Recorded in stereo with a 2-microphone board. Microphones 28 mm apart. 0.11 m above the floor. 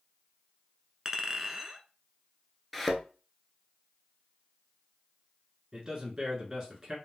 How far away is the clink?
About 0.7 m.